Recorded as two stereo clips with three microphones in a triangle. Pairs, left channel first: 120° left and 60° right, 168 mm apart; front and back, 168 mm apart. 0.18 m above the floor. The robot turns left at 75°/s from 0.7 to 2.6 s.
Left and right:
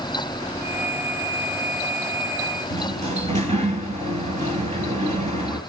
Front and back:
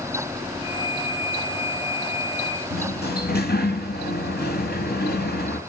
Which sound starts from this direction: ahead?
A sliding door, at 2.7 s.